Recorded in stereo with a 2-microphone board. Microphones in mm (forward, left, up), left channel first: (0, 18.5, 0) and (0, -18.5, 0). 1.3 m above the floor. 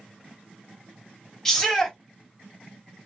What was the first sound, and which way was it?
A shout, 15° left (ahead or behind).